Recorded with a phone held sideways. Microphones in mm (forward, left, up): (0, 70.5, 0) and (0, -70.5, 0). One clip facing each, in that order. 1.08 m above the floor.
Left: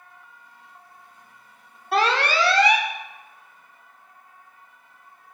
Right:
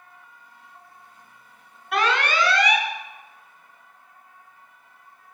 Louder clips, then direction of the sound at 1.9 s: Left 2 dB; 30° left (ahead or behind).